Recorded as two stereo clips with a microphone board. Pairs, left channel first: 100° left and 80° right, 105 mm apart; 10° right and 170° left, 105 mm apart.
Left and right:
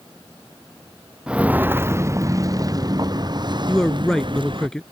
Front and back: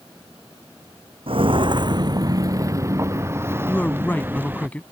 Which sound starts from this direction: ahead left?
A man speaking, at 3.7 s.